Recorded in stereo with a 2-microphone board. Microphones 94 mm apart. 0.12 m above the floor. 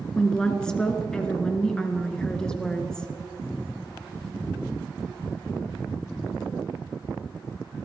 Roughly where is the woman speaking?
Centre.